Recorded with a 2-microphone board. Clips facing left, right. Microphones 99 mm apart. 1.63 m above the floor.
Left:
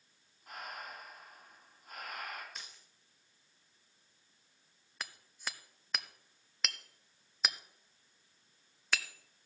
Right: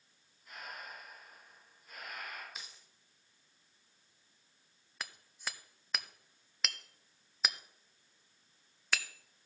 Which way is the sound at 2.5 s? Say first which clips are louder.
Even; 5° right (ahead or behind).